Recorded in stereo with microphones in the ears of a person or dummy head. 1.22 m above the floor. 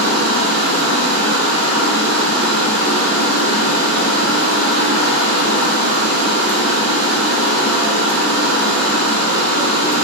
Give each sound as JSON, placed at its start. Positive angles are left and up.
{"t": 0.0, "sound": "running water", "side_deg": 65, "distance_m": 0.8}